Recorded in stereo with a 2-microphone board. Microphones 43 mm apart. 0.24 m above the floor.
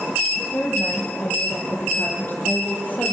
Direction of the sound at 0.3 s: 40° left (ahead or behind).